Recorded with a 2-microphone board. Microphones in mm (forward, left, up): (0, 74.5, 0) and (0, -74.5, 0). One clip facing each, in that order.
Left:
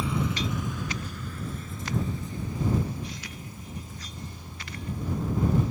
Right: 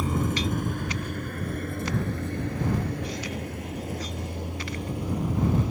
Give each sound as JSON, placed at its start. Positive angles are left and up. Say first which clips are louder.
{"t": 0.0, "sound": "a vehicle", "louder": "right 2 dB", "side_deg": -45}